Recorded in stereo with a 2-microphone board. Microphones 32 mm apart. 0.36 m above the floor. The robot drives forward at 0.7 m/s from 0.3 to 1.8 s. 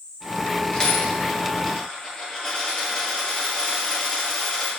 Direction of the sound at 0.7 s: 25° left (ahead or behind).